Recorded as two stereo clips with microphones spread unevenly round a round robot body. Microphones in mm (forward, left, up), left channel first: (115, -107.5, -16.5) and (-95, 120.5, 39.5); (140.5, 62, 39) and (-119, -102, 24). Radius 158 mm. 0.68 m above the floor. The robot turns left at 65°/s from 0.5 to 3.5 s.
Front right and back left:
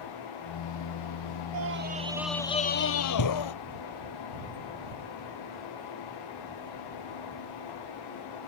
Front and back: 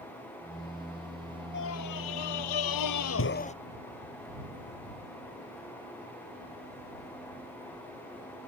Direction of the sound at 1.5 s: 90° left.